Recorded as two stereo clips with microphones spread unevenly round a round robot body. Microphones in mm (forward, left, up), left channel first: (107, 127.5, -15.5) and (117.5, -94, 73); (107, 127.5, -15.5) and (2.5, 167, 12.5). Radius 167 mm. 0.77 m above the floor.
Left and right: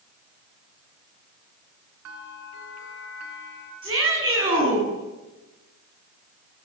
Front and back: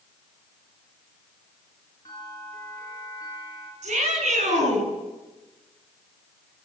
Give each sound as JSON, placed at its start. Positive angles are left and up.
{"t": 2.0, "sound": "a bell", "azimuth_deg": -100, "distance_m": 6.0}
{"t": 3.8, "sound": "a shout", "azimuth_deg": -165, "distance_m": 9.5}